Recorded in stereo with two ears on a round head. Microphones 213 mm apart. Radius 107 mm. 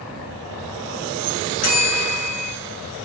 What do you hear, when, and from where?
1.6 s a bell: 70° left (ahead or behind), 3.5 m